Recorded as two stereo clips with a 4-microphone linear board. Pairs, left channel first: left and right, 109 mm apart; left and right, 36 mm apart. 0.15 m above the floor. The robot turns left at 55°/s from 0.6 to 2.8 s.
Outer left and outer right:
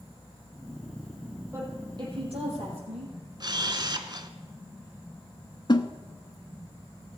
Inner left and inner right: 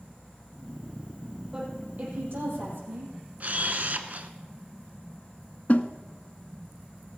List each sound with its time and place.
1.5 s a woman speaking: 20° right, 4.5 m; by 3.1 s 90° right, 4.5 m
3.4 s a camera shutter: 40° right (ahead or behind), 0.7 m
5.7 s a snare drum: 45° left (ahead or behind), 0.6 m